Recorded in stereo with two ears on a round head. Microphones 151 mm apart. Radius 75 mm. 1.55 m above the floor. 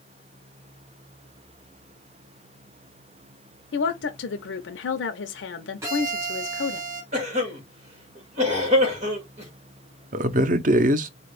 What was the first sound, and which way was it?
A woman speaking, 75° left (ahead or behind).